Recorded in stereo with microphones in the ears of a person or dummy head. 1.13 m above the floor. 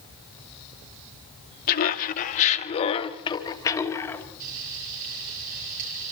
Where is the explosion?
I don't hear an explosion.